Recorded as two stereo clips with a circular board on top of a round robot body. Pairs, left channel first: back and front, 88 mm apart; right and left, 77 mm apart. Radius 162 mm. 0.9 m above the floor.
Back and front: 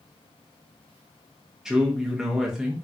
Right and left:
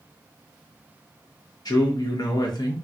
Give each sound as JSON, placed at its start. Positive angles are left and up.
{"t": 1.6, "sound": "a man speaking", "azimuth_deg": -85, "distance_m": 0.9}